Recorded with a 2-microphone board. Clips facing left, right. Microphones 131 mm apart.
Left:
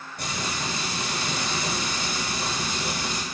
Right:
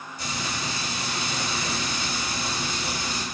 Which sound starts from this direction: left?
Frying, at 0.2 s.